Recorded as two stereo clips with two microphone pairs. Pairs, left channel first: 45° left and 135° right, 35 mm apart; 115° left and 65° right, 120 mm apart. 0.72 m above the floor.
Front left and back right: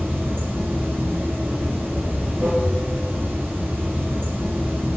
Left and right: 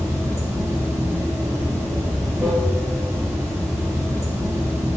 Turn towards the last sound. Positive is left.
turn(degrees=-130)